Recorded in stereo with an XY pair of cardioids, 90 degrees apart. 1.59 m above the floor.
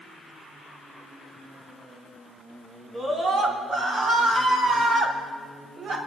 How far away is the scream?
About 5.5 m.